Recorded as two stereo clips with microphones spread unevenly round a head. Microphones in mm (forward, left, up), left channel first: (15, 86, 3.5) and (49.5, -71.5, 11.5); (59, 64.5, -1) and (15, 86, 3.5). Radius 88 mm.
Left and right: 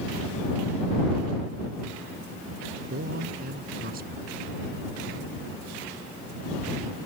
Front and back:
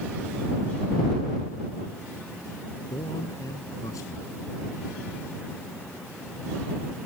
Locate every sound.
2.9 s a man speaking: 45° right